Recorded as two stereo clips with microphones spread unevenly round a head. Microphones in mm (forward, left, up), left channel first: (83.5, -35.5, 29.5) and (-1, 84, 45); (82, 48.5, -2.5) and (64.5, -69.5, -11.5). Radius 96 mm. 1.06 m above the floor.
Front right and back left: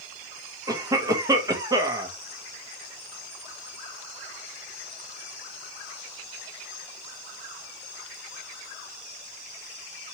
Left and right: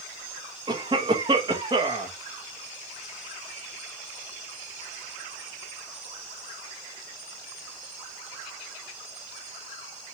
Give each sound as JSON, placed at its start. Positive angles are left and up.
{"t": 0.7, "sound": "a cough", "azimuth_deg": -165, "distance_m": 1.1}